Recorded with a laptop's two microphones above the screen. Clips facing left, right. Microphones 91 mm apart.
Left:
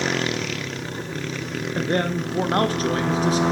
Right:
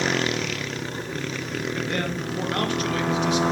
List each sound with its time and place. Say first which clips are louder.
1.8 s a man speaking: left 8 dB; 35° left (ahead or behind), 1.1 m